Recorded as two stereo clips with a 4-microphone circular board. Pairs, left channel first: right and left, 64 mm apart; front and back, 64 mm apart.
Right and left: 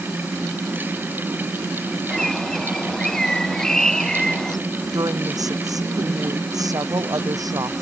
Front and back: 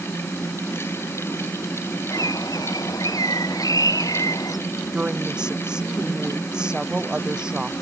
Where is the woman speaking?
100° left.